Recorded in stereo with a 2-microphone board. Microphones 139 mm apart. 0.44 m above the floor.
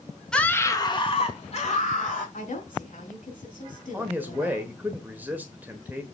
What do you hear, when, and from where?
0.3 s a scream: 5° left (ahead or behind), 1.1 m; by 2.2 s 65° left (ahead or behind), 2 m
2.3 s a woman speaking: 70° left (ahead or behind), 4.5 m
3.9 s a man speaking: 15° right (ahead or behind), 1.2 m